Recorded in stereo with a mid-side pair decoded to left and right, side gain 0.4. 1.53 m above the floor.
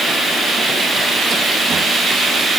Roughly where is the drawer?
No drawer in this recording.